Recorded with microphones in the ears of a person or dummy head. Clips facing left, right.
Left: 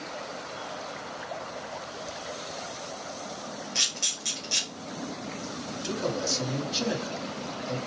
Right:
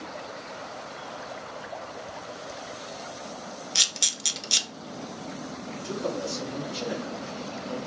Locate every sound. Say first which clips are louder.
3.8 s a camera shutter: even; 45° right (ahead or behind), 0.8 m
5.7 s a man speaking: even; 60° left (ahead or behind), 1.3 m